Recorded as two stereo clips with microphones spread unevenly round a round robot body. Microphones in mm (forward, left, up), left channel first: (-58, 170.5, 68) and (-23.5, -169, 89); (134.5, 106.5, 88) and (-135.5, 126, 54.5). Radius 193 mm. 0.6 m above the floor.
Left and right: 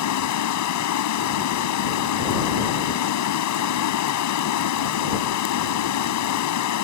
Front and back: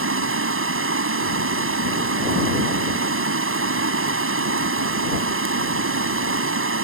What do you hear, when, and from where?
0.0 s running water: 135° left